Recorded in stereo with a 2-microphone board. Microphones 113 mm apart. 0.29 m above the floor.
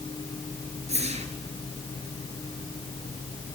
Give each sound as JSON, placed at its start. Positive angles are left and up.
{"t": 0.9, "sound": "a whoosh", "side_deg": -75, "distance_m": 3.0}